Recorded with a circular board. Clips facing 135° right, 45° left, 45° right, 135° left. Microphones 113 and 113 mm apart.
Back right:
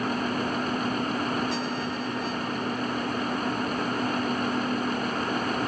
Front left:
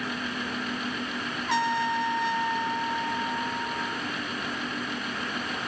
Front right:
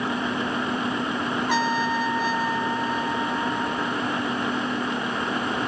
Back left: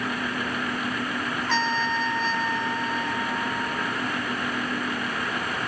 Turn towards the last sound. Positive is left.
turn(degrees=35)